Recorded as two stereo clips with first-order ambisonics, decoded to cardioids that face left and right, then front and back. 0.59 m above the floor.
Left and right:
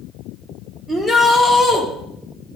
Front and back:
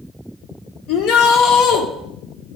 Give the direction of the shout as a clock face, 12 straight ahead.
12 o'clock.